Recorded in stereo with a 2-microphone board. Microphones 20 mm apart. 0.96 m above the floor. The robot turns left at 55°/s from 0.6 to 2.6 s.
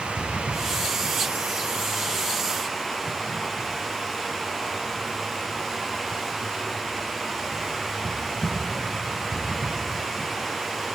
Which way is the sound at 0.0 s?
75° right.